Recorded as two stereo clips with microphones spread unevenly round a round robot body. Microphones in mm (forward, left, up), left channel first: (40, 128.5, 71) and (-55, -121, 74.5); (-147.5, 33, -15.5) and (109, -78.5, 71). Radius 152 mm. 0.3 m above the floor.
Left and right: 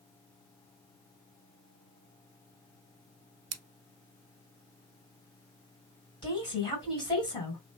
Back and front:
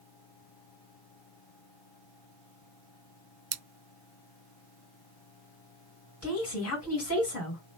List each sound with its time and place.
3.5 s scissors: 70° right, 0.6 m
6.2 s a woman speaking: 140° left, 2.5 m